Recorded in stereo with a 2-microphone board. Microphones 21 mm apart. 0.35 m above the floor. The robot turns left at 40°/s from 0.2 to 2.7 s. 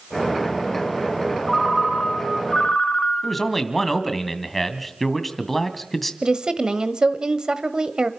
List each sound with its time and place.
1.5 s a ringtone: straight behind, 3 m; by 3.5 s 130° left, 3 m
3.2 s a man speaking: 5° left (ahead or behind), 2 m
6.2 s a woman speaking: 40° right (ahead or behind), 1.4 m